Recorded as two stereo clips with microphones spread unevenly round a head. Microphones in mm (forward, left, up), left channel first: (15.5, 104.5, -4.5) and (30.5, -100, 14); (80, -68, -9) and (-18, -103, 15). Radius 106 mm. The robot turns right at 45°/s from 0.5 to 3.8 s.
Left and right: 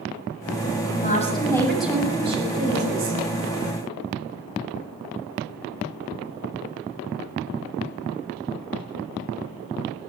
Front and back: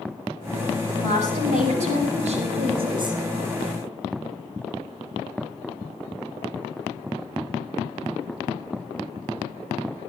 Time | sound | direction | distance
1.0 | a woman speaking | 145° left | 7 m